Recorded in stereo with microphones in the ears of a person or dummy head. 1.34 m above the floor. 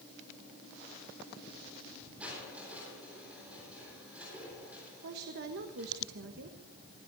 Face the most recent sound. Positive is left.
turn(degrees=-60)  # may be behind; listen again after turning